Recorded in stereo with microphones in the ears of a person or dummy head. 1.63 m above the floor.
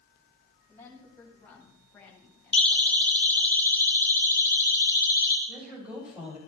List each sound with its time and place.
0.7 s a woman speaking: 10° left (ahead or behind), 8.5 m; by 3.5 s 5° left (ahead or behind), 8 m
2.5 s a siren: 5° left (ahead or behind), 5 m; by 5.4 s 20° left (ahead or behind), 5.5 m
5.5 s a woman speaking: 5° right (ahead or behind), 8 m